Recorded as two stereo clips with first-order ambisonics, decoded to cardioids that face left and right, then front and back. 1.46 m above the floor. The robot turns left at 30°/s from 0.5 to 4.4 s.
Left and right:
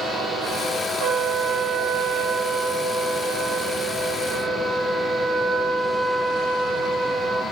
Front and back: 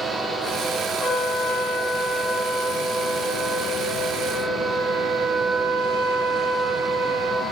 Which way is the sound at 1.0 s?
80° right.